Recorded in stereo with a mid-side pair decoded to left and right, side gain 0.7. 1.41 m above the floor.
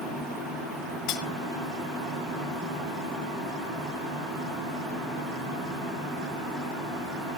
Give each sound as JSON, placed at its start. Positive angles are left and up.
{"t": 1.1, "sound": "cutlery clinking", "azimuth_deg": 65, "distance_m": 1.6}